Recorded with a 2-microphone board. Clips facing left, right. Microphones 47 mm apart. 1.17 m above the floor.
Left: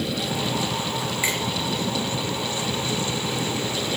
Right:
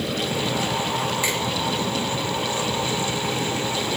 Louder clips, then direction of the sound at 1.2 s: Right 1 dB; 15° left (ahead or behind).